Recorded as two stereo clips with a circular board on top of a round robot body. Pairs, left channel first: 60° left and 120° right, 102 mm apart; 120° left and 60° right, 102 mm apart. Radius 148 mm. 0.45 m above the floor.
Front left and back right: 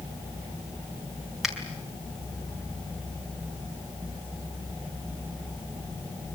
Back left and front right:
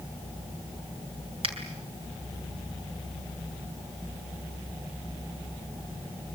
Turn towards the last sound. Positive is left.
turn(degrees=-35)